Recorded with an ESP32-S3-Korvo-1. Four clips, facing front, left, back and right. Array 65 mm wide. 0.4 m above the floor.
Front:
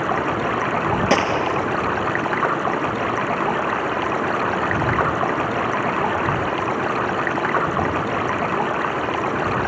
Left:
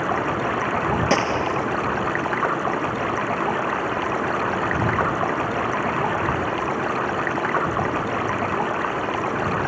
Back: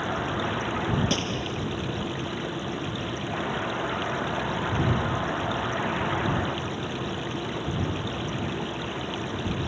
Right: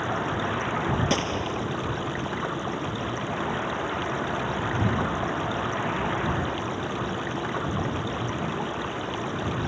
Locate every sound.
0.0 s running water: 30° left
1.1 s a gunshot: 25° left